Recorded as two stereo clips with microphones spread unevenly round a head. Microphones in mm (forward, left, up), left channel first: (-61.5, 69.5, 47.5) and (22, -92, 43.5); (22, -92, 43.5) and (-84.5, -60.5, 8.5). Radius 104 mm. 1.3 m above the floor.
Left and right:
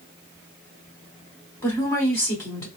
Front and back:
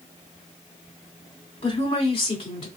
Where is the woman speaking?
45° left, 1.6 m.